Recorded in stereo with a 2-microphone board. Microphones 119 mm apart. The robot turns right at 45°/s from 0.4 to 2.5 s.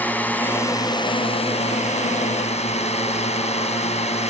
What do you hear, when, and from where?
0.0 s a drone: 15° left; by 4.3 s 110° left